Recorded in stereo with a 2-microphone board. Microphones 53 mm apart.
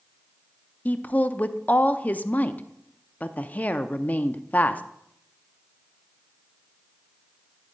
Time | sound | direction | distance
0.8 | a woman speaking | 30° left (ahead or behind) | 0.5 m